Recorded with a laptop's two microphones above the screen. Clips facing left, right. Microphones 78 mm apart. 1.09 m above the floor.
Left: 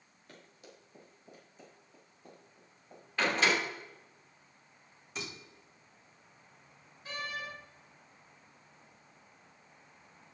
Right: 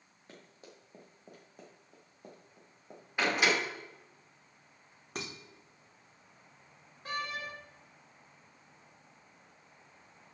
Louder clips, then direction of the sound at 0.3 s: Right 1 dB; 25° right (ahead or behind).